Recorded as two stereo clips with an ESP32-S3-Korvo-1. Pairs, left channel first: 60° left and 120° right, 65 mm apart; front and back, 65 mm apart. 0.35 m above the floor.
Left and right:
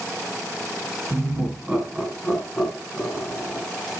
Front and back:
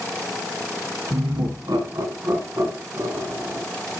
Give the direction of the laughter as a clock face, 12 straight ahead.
6 o'clock.